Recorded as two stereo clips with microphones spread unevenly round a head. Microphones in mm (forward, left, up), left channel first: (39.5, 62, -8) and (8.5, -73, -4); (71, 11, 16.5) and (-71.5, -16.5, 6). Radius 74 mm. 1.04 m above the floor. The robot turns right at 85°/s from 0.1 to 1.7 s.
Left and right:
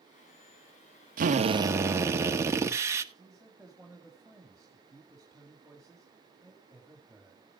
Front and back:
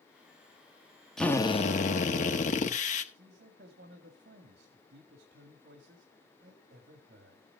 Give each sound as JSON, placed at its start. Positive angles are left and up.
{"t": 1.2, "sound": "a drill", "azimuth_deg": -75, "distance_m": 1.2}
{"t": 3.1, "sound": "a man speaking", "azimuth_deg": 165, "distance_m": 2.0}